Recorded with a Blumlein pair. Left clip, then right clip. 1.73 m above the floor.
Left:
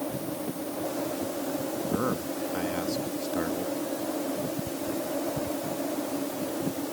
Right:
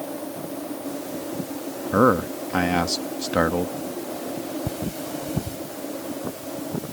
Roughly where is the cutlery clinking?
Ahead right.